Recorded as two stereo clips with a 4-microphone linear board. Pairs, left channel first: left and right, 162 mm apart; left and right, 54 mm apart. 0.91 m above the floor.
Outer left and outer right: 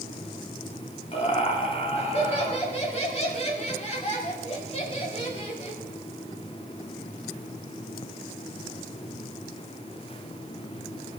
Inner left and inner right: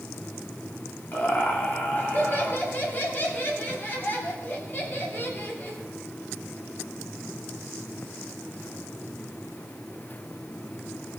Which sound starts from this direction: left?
Laughter, at 1.1 s.